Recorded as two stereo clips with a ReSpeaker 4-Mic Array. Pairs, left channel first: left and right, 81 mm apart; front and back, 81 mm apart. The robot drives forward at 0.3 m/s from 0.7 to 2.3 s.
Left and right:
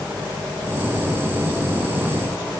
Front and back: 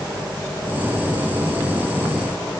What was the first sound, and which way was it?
Only background noise.